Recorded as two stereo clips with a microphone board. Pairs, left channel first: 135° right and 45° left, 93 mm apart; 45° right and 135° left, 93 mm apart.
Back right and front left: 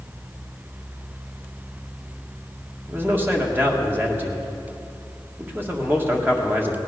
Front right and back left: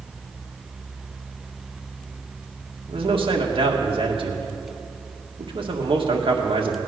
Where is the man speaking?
115° left, 2.0 m.